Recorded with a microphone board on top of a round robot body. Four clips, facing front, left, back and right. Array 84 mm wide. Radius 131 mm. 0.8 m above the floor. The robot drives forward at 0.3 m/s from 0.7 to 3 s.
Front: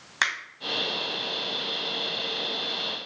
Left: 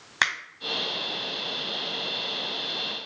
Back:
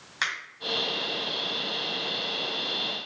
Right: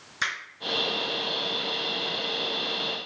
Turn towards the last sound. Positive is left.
turn(degrees=95)